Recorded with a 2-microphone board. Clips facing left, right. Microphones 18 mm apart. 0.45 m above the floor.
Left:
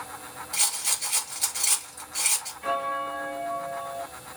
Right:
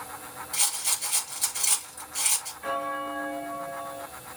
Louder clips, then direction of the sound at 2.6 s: Left 3 dB; 30° left (ahead or behind).